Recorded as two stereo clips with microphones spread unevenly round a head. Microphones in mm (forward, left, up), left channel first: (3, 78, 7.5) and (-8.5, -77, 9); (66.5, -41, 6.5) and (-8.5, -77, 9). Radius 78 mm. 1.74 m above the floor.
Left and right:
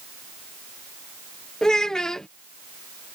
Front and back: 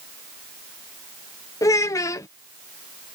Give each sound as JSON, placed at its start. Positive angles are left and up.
{"t": 1.6, "sound": "a child speaking", "azimuth_deg": 0}